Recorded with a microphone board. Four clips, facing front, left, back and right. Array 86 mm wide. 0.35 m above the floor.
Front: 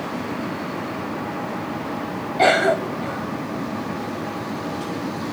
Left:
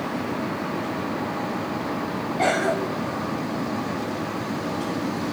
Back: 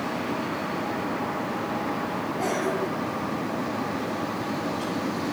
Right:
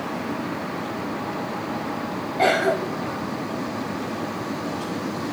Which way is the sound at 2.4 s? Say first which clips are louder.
Right 3 dB, front 11 dB; 15° right.